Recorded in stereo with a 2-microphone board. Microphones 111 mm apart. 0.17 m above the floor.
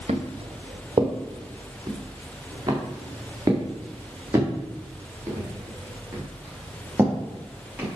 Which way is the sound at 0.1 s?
60° right (ahead or behind).